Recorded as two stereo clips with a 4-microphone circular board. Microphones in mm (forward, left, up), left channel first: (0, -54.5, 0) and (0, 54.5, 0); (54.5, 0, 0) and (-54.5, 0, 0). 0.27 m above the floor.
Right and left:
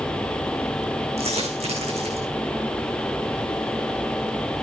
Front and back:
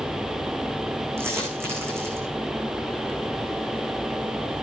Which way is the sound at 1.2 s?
110° left.